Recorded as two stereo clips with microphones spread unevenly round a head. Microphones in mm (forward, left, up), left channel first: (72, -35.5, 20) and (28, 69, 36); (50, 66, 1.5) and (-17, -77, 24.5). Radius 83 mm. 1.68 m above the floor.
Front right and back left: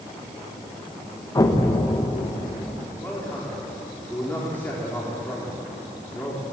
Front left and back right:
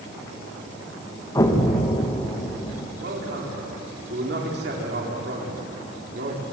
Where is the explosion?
5° right, 2 m.